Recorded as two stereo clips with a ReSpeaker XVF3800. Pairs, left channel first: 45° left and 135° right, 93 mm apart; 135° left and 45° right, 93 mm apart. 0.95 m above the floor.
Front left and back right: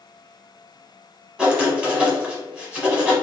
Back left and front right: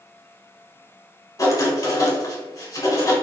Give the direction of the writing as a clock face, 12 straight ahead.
7 o'clock.